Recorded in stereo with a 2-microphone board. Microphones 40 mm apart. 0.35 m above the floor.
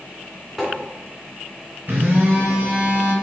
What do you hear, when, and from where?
0.6 s tapping: 5° right (ahead or behind), 3 m
1.9 s a phone buzzing: 55° right (ahead or behind), 3 m